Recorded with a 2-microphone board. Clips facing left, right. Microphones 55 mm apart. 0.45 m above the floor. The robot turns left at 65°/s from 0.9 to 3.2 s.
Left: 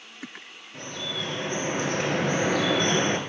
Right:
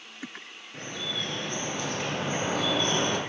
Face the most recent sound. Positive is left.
turn(degrees=45)